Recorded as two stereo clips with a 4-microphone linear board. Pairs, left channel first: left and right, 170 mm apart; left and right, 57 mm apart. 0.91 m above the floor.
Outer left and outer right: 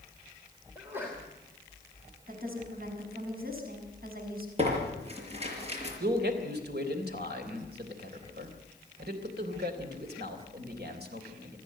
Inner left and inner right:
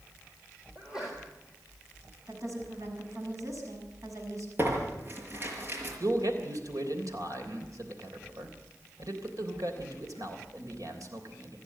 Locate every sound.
0.8 s a sneeze: 10° right (ahead or behind), 3 m
2.3 s a woman speaking: 55° right (ahead or behind), 6 m
4.6 s tearing paper: 35° right (ahead or behind), 5.5 m
6.0 s a man speaking: 65° right (ahead or behind), 3.5 m